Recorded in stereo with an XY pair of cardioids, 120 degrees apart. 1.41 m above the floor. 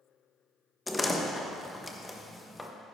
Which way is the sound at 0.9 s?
15° left.